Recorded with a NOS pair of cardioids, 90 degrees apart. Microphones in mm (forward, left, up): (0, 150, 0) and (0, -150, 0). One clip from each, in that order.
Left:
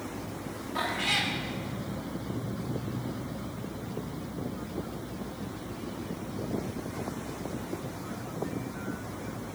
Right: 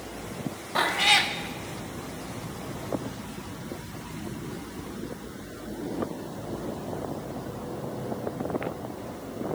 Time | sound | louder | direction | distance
0.8 | a cat meowing | right 7 dB | 45° right | 1.0 m